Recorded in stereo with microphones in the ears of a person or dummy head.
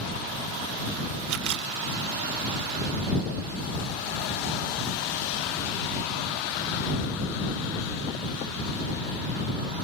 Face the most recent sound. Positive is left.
turn(degrees=-70)  # may be behind; listen again after turning